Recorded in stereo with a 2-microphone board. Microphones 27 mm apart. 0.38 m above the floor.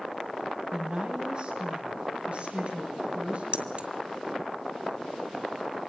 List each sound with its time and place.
0.7 s a woman speaking: 35° right (ahead or behind), 2.5 m; by 3.4 s 60° right (ahead or behind), 3.5 m
3.5 s keys jangling: 50° right (ahead or behind), 1.2 m